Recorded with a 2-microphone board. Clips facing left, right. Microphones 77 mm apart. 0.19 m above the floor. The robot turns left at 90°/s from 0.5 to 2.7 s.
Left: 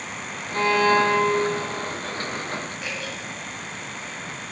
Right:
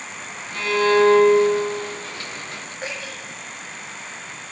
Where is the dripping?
40° right (ahead or behind), 8 m.